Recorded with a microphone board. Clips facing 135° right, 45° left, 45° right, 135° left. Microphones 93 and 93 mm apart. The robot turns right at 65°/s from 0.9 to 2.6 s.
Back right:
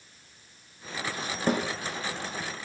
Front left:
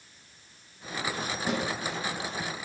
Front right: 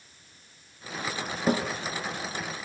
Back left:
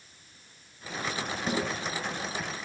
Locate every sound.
1.5 s a snare drum: 90° right, 6.5 m; by 1.6 s 75° right, 6.5 m